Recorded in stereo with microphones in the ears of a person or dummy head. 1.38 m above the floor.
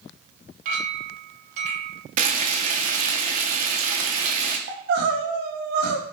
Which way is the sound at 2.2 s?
50° right (ahead or behind).